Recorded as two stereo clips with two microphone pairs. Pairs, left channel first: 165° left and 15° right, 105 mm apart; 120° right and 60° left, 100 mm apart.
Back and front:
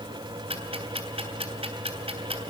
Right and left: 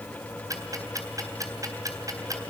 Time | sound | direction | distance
0.5 | ticking | 5° left | 3.5 m